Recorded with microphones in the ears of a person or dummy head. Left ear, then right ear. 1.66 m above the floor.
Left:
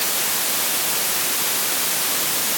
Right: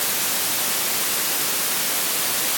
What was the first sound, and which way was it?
Only background noise.